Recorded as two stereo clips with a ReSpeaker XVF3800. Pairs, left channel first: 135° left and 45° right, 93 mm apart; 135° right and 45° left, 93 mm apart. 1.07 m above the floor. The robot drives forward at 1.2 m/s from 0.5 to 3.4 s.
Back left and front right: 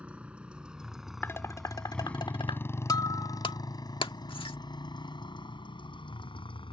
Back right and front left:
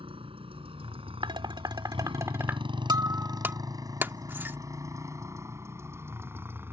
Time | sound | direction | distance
0.0 | a motorcycle | 35° left | ?
1.2 | dishes clattering | 70° left | ?
2.9 | breaking glass | 90° left | ?